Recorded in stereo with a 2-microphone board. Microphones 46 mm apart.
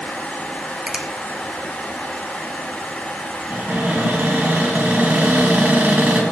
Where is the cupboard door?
50° right (ahead or behind), 1.9 m.